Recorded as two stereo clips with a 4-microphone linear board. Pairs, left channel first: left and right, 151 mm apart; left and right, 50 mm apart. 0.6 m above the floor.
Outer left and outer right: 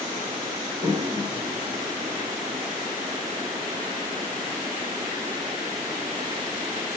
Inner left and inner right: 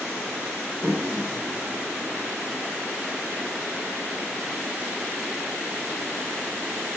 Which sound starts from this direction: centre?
A toilet flushing, at 0.8 s.